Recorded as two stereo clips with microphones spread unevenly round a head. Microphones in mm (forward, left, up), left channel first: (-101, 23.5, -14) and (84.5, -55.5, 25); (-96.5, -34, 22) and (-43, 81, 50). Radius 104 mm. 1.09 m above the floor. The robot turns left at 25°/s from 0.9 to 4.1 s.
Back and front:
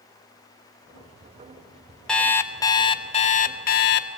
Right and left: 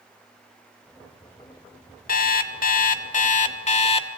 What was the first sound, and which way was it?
An alarm clock, 115° right.